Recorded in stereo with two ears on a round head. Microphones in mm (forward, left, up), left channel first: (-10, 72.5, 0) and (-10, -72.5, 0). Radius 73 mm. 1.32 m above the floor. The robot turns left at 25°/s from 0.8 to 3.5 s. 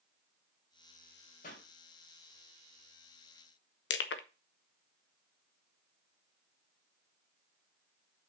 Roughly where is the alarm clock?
No alarm clock in this recording.